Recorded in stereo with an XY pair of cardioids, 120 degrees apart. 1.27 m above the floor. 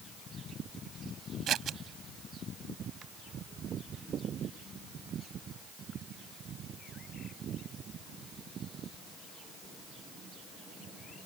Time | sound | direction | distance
1.5 | scissors | 55° right | ?